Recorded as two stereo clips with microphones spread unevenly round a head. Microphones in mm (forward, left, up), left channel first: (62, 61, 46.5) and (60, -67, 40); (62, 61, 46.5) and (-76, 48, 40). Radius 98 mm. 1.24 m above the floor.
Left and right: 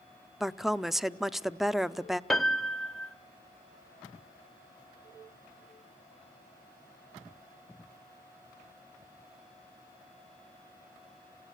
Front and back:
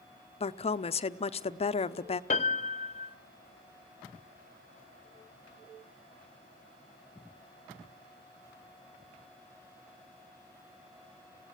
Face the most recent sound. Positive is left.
turn(degrees=5)